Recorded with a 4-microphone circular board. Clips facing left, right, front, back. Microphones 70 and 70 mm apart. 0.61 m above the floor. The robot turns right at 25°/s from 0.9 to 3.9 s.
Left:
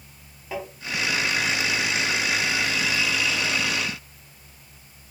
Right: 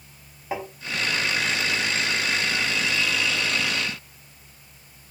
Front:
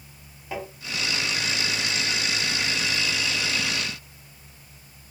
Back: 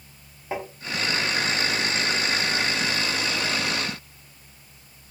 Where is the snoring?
No snoring in this recording.